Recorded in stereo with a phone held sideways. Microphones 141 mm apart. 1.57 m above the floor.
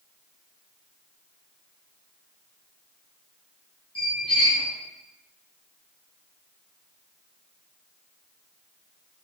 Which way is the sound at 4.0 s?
35° left (ahead or behind).